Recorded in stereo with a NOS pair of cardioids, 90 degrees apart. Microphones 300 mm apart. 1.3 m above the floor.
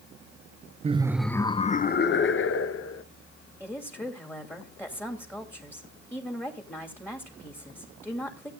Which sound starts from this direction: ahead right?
Laughter, at 0.8 s.